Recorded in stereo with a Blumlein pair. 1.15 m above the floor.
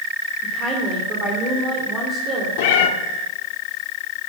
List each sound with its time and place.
0.4 s a woman speaking: 20° right, 3 m
2.6 s a cat meowing: 50° left, 1.5 m